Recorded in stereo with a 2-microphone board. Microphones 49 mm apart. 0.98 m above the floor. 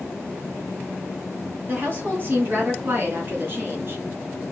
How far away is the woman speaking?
About 3.5 m.